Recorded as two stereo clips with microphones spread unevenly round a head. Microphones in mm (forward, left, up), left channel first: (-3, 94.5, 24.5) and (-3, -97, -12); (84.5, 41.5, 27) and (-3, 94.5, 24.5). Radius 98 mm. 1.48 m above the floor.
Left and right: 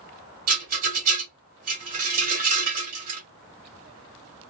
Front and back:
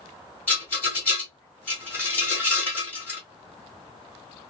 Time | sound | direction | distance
0.5 | a rattle | 90° right | 1.4 m